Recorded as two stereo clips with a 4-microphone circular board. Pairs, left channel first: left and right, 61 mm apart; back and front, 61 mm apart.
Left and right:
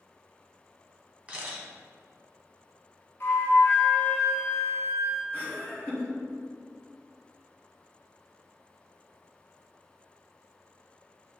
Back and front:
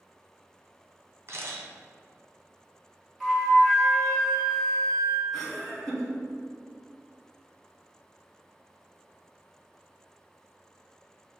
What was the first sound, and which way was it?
A camera shutter, 30° right.